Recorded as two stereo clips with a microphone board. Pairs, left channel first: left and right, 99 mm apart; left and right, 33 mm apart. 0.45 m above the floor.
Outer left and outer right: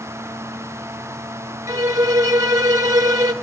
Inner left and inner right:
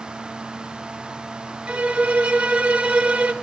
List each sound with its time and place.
1.7 s a violin: 40° right (ahead or behind), 1.0 m